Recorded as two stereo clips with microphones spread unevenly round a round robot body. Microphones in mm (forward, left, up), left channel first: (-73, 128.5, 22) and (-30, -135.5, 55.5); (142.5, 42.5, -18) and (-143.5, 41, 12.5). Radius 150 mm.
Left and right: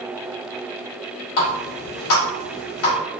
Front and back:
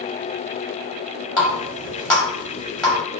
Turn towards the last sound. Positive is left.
turn(degrees=85)